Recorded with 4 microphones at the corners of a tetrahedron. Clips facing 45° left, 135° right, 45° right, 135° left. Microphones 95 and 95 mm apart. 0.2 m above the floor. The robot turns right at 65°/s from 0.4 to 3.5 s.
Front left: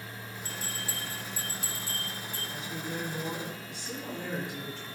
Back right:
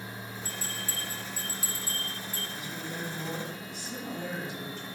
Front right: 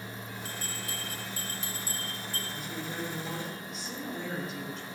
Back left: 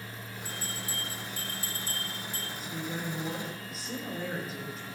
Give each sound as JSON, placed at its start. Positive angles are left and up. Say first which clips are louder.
{"t": 0.5, "sound": "a bell", "louder": "front left 2 dB, back left 2 dB", "azimuth_deg": -55, "distance_m": 3.0}
{"t": 2.5, "sound": "a woman speaking", "louder": "front left 4 dB, back left 2 dB", "azimuth_deg": -15, "distance_m": 5.0}